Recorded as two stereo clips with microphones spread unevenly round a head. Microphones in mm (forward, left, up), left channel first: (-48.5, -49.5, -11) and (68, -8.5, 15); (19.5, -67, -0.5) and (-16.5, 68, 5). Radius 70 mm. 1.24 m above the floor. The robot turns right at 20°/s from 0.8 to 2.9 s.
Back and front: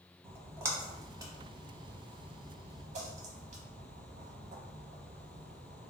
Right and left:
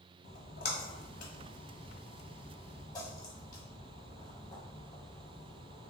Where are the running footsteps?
No running footsteps in this recording.